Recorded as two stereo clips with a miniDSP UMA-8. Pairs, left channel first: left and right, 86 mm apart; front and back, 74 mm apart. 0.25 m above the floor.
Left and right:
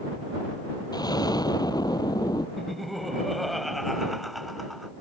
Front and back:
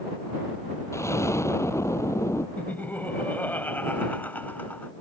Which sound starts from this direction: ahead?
Laughter, at 2.6 s.